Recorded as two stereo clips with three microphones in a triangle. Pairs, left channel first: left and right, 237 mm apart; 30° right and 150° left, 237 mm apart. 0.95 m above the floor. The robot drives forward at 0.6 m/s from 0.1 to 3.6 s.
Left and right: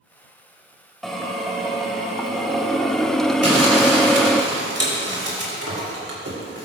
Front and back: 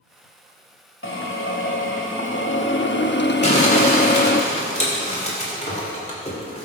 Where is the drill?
Straight ahead, 2 m; by 4.4 s 5° left, 0.5 m.